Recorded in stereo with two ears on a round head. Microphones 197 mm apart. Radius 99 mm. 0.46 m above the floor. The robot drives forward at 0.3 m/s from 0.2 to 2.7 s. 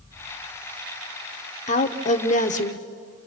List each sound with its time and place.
1.7 s a woman speaking: 35° left (ahead or behind), 1.2 m